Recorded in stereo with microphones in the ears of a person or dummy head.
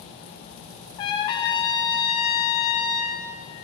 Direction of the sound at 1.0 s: 30° left (ahead or behind).